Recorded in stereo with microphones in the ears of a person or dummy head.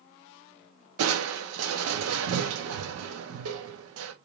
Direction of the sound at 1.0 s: 85° right.